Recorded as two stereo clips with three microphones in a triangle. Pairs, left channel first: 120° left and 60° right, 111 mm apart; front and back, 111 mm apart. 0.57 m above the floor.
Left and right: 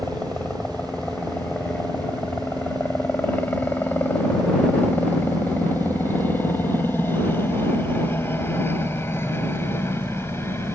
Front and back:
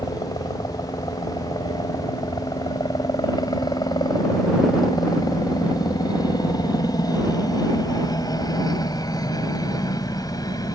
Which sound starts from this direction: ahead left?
A helicopter, at 0.0 s.